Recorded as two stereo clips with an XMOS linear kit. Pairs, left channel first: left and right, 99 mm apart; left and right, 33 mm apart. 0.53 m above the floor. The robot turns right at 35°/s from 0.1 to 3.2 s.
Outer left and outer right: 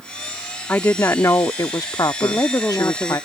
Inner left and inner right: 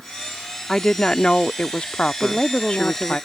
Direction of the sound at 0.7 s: 30° left.